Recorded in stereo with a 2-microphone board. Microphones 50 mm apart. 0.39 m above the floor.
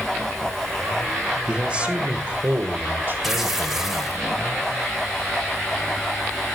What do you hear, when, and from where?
1.5 s a man speaking: 20° right (ahead or behind), 1.4 m; by 4.2 s 50° right (ahead or behind), 2.0 m
3.2 s tearing paper: 5° right (ahead or behind), 1.1 m